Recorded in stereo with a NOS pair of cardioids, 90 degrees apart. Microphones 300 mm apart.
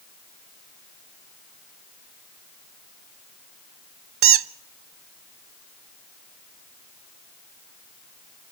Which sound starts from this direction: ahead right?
A squeak, at 4.2 s.